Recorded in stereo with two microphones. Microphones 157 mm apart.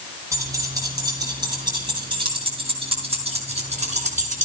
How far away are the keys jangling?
About 7 m.